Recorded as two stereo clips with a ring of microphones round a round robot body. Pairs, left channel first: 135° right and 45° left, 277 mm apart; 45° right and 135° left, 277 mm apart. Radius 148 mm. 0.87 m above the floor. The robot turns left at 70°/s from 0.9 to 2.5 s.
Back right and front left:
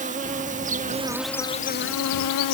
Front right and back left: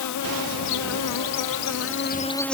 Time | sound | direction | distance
0.0 | an insect | 20° right | ?